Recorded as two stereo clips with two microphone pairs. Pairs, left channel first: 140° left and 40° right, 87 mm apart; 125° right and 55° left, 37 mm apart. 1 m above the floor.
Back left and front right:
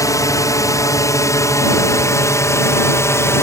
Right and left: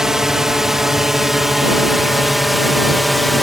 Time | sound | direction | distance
0.0 | a drone | 130° left | ?